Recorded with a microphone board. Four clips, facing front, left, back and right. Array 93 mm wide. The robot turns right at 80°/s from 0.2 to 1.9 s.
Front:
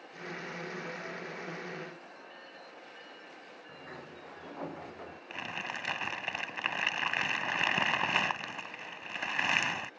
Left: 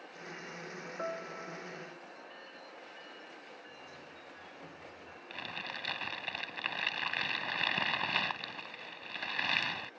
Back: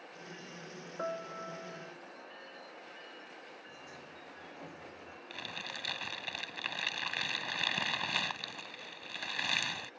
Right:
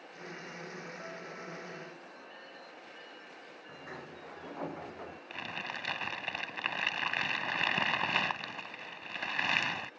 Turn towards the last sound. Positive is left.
turn(degrees=-20)